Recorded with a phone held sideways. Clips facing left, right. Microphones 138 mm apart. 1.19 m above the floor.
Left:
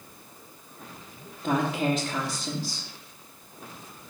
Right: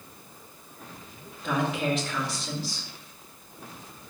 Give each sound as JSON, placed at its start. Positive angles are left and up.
{"t": 1.4, "sound": "a woman speaking", "side_deg": 35, "distance_m": 2.0}